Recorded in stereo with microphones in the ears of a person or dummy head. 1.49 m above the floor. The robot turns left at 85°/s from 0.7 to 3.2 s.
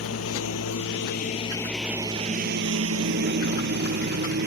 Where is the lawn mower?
85° left; by 4.5 s 55° right (ahead or behind).